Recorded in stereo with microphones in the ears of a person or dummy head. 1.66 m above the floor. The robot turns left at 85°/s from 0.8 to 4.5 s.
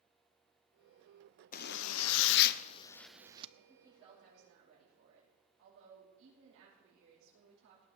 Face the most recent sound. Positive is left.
turn(degrees=-70)